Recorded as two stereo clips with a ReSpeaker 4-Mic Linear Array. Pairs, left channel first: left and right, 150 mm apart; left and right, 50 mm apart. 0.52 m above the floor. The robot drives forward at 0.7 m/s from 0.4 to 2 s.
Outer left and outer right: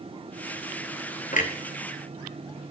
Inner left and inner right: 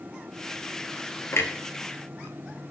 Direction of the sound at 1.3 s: 60° left (ahead or behind).